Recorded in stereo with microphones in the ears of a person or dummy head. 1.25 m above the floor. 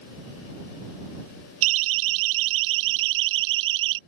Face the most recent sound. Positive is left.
turn(degrees=-65)  # may be behind; listen again after turning